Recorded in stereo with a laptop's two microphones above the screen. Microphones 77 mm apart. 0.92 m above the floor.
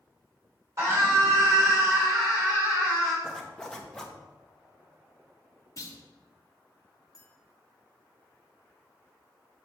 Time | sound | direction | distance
0.8 | a scream | 40° right (ahead or behind) | 3 m
3.2 | a zipper | 10° left (ahead or behind) | 0.9 m
5.8 | a clunk | 40° left (ahead or behind) | 1.3 m
7.1 | a clink | 10° right (ahead or behind) | 2.0 m